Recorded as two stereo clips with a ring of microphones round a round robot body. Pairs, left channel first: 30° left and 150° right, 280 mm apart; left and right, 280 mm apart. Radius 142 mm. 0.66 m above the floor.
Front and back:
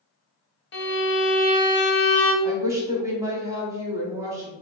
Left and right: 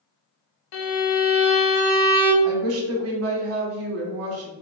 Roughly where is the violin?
Left.